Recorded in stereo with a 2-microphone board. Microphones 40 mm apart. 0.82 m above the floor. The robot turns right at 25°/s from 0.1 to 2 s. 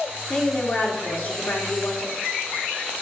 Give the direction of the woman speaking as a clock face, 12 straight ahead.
11 o'clock.